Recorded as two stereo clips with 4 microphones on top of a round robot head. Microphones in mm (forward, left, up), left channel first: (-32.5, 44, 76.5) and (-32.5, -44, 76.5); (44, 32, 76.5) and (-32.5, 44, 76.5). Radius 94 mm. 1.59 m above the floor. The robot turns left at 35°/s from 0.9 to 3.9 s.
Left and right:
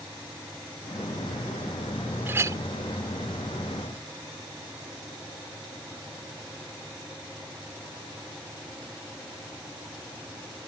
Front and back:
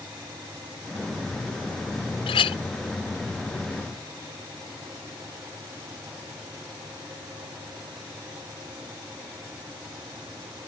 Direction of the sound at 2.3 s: 15° right.